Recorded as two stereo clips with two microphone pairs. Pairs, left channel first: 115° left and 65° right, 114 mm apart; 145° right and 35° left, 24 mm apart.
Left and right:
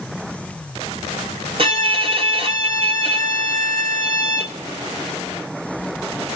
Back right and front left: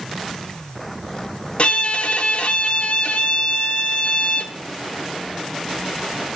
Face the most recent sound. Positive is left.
turn(degrees=-105)